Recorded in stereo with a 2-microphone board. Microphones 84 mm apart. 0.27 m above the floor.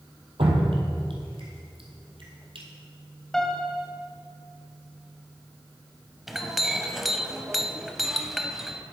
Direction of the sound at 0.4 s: 80° right.